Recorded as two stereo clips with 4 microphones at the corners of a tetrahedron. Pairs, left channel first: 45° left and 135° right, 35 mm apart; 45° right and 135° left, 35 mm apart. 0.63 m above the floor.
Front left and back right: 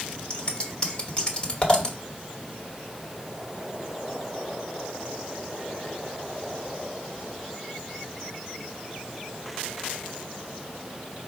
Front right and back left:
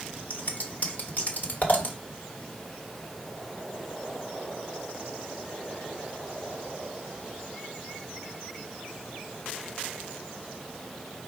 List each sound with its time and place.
0.3 s scissors: 15° right, 1.0 m